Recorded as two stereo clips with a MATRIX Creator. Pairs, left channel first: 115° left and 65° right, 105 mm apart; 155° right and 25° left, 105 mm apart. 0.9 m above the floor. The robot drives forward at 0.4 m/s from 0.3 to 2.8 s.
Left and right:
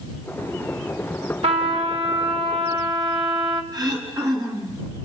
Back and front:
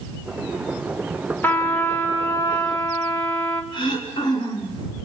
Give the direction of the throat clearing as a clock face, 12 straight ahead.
4 o'clock.